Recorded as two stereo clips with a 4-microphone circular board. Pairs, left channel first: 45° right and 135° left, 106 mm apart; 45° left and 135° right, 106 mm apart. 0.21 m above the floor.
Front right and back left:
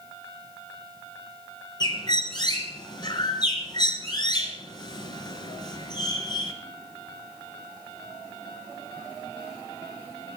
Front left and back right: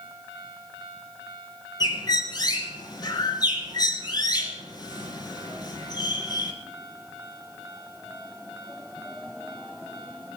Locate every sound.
1.8 s a bird: straight ahead, 2.5 m